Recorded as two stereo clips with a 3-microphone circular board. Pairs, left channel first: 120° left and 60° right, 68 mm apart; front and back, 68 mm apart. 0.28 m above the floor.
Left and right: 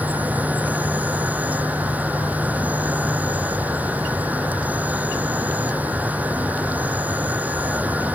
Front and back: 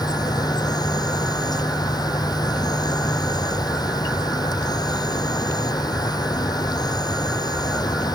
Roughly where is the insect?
Ahead.